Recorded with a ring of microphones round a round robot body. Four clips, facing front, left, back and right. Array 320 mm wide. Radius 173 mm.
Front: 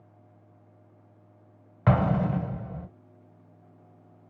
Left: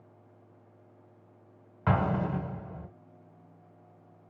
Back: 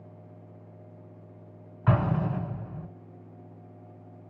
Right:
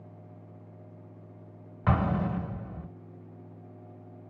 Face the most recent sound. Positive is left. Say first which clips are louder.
# even, front 3 dB
turn(degrees=-5)